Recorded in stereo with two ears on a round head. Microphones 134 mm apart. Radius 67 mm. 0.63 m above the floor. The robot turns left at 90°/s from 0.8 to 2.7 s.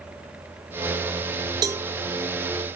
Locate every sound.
1.6 s a cowbell: 25° right (ahead or behind), 0.5 m; by 1.9 s 5° right (ahead or behind), 0.5 m